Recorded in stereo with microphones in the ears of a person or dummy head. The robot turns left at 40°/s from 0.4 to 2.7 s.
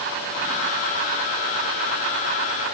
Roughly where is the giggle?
No giggle in this recording.